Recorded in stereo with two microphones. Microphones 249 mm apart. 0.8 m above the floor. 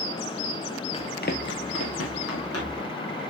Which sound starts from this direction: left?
Running footsteps, at 0.9 s.